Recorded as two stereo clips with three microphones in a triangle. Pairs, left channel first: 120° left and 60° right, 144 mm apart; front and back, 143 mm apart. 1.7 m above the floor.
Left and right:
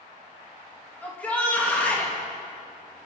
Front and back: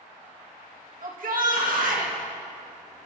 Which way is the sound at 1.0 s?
160° right.